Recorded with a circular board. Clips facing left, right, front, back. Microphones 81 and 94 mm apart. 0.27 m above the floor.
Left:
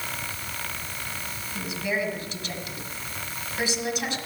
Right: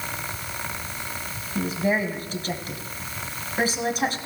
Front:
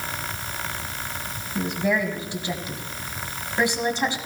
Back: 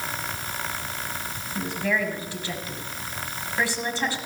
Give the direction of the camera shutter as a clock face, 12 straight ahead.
I don't hear a camera shutter.